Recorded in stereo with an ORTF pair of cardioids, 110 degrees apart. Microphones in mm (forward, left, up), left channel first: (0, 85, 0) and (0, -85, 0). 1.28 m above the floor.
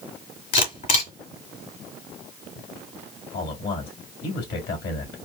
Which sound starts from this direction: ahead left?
A camera shutter, at 0.5 s.